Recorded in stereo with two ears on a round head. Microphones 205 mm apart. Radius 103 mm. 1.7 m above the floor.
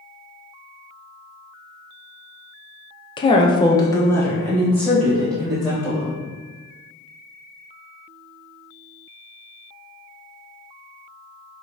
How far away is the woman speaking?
About 0.5 m.